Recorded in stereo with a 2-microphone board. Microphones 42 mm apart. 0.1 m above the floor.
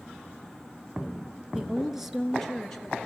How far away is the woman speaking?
About 1.2 m.